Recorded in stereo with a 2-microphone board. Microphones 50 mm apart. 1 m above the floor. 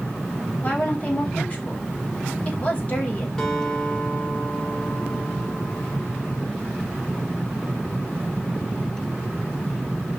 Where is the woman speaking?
30° left (ahead or behind), 5 m.